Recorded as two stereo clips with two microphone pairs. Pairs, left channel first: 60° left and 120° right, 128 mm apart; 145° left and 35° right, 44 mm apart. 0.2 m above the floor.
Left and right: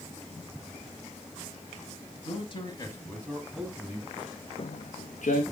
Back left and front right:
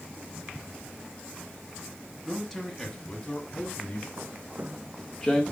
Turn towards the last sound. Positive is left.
turn(degrees=75)